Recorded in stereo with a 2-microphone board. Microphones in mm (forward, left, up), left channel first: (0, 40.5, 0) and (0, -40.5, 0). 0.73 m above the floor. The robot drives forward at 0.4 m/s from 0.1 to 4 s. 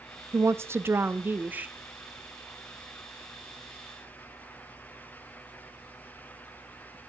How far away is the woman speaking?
About 0.5 m.